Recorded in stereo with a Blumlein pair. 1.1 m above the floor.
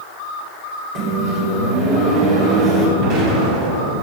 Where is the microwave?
35° right, 3.5 m.